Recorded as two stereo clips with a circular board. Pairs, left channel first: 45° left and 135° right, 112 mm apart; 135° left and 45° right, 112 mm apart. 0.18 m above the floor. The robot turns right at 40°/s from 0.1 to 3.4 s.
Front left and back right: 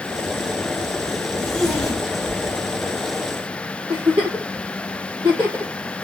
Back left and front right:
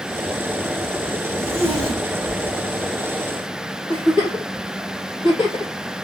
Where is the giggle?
170° left, 3.5 m.